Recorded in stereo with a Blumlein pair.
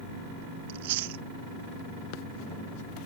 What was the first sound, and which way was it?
Chewing, 50° right.